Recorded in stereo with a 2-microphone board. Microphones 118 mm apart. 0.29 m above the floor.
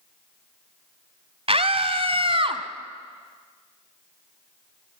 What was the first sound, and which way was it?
A scream, 55° right (ahead or behind).